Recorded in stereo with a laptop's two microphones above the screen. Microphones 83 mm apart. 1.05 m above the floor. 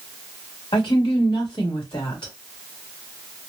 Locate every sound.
0.7 s a woman speaking: 80° left, 1.8 m